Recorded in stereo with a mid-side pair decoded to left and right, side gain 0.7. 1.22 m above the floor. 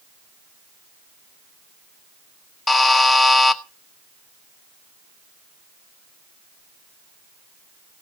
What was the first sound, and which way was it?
A buzzer, 15° left.